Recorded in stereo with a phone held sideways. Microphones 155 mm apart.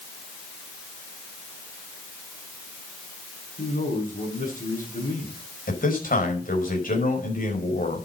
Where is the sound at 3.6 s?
65° left (ahead or behind), 7 m.